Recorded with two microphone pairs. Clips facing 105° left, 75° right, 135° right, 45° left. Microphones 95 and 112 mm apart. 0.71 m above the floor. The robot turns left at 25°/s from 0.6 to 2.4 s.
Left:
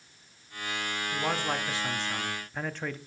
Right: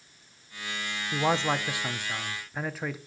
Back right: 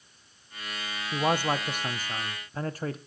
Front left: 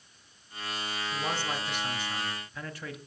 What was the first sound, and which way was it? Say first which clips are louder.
A man speaking: right 5 dB, back right 9 dB; 135° right.